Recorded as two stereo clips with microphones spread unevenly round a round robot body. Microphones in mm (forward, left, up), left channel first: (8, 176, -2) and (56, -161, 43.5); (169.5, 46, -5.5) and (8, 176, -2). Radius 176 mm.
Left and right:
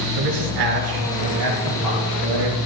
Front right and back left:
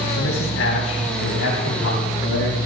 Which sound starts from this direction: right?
A man speaking, at 0.2 s.